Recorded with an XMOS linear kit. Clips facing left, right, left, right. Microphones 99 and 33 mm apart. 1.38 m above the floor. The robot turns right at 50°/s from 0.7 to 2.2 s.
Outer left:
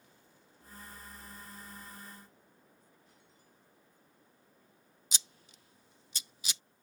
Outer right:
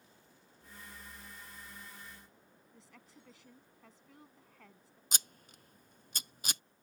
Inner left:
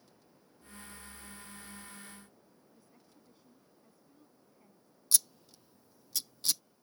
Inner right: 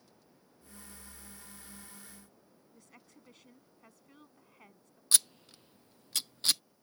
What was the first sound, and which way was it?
A woman speaking, 80° right.